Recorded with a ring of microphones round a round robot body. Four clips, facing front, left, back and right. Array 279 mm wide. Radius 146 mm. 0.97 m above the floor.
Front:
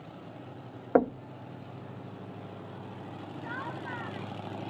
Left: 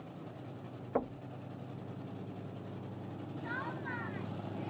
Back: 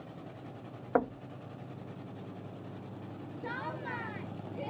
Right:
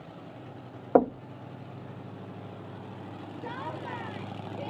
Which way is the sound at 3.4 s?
130° right.